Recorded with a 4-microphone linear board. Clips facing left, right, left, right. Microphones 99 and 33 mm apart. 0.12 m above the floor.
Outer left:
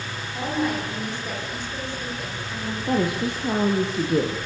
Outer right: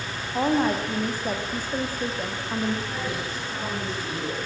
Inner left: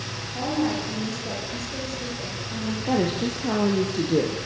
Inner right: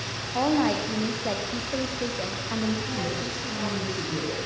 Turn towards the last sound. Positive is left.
turn(degrees=60)  # may be behind; listen again after turning